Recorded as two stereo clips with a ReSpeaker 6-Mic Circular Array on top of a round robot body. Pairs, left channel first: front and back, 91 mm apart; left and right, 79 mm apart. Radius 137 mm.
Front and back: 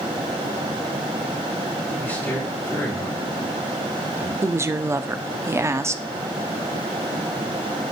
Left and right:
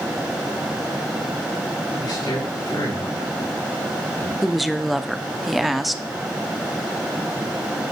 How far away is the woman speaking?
About 0.9 m.